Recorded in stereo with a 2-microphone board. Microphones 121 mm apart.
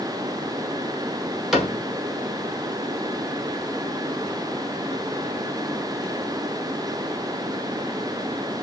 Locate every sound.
1.5 s a cupboard door: 5° right (ahead or behind), 1.4 m